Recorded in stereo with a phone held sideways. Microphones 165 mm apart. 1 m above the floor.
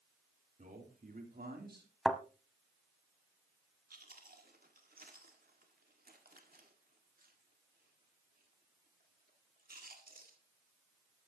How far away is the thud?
About 0.9 m.